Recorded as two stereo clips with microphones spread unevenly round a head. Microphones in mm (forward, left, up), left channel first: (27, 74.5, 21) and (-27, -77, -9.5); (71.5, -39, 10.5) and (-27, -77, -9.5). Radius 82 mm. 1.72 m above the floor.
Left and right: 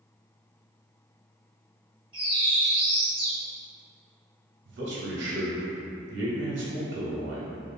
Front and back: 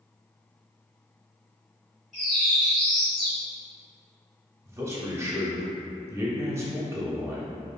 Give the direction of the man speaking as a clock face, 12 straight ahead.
3 o'clock.